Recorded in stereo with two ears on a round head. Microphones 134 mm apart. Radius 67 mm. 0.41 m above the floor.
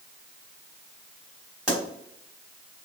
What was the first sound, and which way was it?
A pop, 5° right (ahead or behind).